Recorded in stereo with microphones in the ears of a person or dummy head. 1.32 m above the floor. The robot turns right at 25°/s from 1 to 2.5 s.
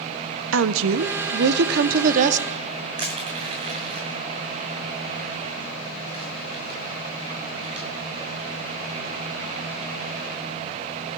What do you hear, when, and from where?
0.5 s a woman speaking: 75° right, 0.6 m; by 2.9 s 40° right, 0.6 m
3.0 s crushing: 30° right (ahead or behind), 2 m